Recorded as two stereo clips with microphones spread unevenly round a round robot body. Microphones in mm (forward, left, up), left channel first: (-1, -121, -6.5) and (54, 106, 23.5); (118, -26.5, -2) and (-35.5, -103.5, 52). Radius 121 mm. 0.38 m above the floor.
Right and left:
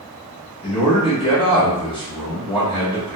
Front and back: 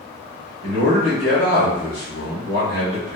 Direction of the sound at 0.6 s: 160° right.